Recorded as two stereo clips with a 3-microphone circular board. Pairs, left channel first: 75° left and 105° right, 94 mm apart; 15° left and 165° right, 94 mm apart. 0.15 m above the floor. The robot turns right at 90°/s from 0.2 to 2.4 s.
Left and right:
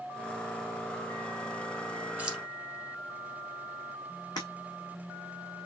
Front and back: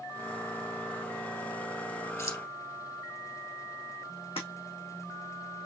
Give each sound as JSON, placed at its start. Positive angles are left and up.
{"t": 2.2, "sound": "keys jangling", "azimuth_deg": -35, "distance_m": 1.1}
{"t": 4.4, "sound": "breaking glass", "azimuth_deg": 30, "distance_m": 2.5}